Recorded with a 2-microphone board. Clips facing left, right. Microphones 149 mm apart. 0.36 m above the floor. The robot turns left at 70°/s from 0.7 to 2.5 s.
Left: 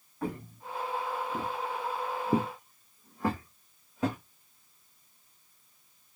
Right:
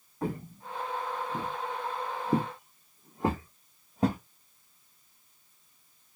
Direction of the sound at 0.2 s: 25° right (ahead or behind).